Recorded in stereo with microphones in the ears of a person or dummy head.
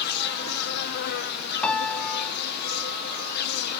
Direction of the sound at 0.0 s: 65° left (ahead or behind).